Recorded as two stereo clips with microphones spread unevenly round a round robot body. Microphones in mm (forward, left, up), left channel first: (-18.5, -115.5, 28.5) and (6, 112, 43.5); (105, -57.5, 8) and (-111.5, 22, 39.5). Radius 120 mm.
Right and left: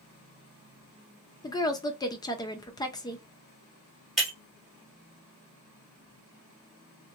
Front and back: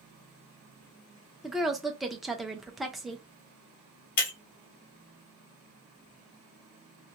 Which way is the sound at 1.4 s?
90° right.